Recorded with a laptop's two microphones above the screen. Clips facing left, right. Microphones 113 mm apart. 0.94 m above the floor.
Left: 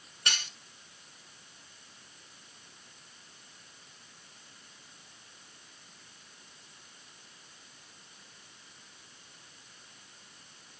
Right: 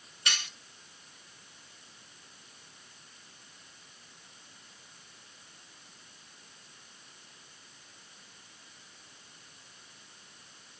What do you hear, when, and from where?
0.3 s cutlery clinking: 40° left (ahead or behind), 2 m